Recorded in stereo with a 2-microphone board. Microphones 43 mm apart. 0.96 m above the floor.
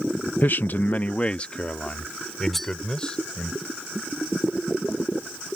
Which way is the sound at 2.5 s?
5° left (ahead or behind).